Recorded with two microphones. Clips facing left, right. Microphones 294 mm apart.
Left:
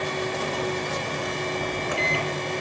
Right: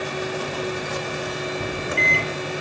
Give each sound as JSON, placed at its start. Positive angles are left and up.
{"t": 1.6, "sound": "a microwave", "side_deg": -25, "distance_m": 0.8}